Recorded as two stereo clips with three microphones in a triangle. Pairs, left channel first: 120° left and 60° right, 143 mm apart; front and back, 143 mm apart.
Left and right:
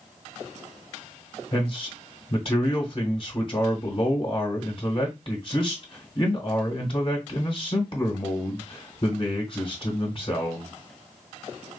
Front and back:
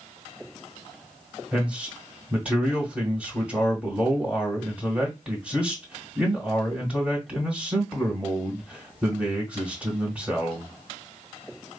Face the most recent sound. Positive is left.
turn(degrees=105)